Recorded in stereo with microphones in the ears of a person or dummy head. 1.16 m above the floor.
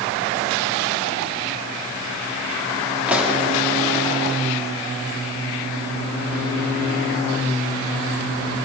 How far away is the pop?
About 2 m.